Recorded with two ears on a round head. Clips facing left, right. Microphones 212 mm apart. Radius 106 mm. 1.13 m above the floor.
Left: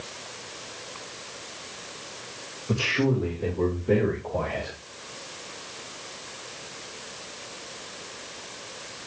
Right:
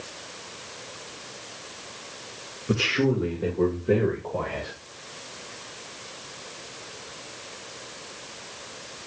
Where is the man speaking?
25° right (ahead or behind), 1.4 m; by 4.8 s 5° right (ahead or behind), 2.5 m.